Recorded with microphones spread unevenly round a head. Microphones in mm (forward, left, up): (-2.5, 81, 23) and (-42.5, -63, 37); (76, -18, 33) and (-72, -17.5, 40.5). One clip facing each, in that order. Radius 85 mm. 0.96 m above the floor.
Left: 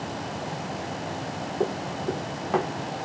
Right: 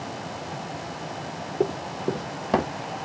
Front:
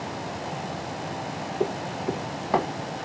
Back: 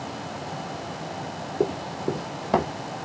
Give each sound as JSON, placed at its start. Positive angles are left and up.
{"t": 1.6, "sound": "running footsteps", "azimuth_deg": -160, "distance_m": 1.1}